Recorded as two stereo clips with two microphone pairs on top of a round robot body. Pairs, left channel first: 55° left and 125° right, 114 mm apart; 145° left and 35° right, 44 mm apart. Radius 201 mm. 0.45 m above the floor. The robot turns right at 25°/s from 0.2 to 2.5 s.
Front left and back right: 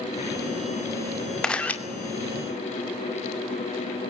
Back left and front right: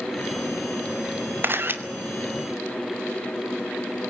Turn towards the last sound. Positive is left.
turn(degrees=5)